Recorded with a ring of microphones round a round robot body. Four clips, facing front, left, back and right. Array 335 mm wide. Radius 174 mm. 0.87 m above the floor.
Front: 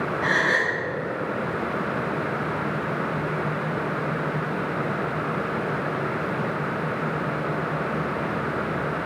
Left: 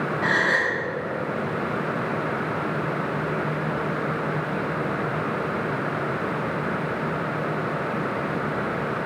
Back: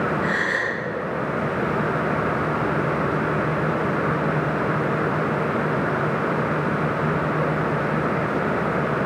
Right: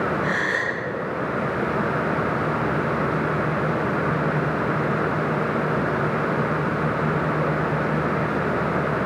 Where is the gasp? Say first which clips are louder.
Left 1 dB, front 1 dB; 55° left, 1.9 m.